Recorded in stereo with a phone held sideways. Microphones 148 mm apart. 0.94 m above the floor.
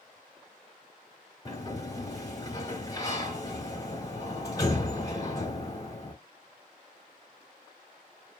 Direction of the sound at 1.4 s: 25° left (ahead or behind).